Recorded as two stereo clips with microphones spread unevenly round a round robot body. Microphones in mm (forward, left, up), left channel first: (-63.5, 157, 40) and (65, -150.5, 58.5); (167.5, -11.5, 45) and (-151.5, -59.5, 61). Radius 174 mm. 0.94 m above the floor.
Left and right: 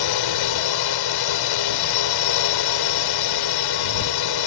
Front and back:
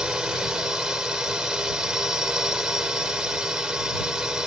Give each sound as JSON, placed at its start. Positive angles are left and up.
{"t": 0.0, "sound": "a drone", "azimuth_deg": 100}